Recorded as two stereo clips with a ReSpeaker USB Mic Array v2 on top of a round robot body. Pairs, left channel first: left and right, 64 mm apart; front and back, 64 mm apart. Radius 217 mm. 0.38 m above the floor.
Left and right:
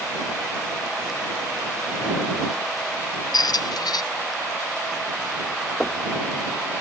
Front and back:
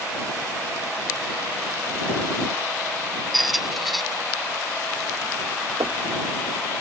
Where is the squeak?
90° left.